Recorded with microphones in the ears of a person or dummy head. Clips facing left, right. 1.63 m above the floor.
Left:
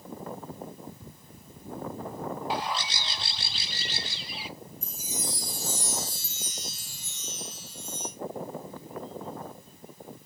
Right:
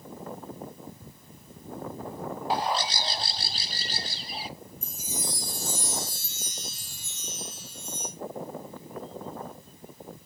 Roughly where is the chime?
Right.